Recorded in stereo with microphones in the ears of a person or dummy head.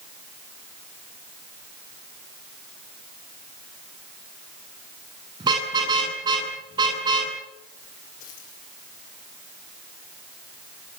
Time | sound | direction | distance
5.4 | a car horn | 25° right (ahead or behind) | 9.5 m
8.2 | a dropped coin | 45° left (ahead or behind) | 8 m